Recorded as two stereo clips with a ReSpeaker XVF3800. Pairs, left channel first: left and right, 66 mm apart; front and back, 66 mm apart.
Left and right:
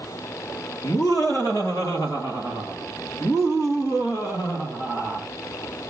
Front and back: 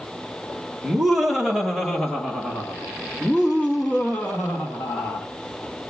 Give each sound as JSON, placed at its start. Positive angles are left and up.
{"t": 0.8, "sound": "laughter", "azimuth_deg": 100, "distance_m": 2.5}